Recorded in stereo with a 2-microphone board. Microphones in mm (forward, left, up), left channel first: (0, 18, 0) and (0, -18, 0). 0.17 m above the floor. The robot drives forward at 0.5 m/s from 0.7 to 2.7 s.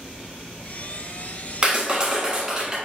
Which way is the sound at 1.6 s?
30° right (ahead or behind).